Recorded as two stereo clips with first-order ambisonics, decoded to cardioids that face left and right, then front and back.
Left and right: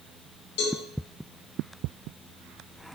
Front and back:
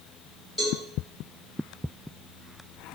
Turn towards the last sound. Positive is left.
turn(degrees=75)